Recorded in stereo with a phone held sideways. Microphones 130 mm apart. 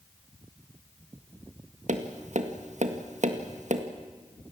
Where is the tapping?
65° right (ahead or behind), 1.8 m.